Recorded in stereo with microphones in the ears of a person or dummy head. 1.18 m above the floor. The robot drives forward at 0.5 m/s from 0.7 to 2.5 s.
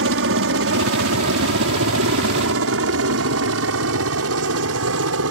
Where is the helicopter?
65° right (ahead or behind); by 5.3 s 70° right (ahead or behind).